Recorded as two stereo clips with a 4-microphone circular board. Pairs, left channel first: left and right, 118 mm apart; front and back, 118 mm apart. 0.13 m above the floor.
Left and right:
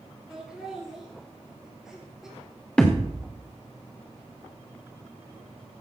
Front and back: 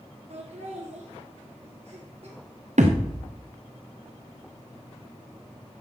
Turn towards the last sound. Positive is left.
turn(degrees=170)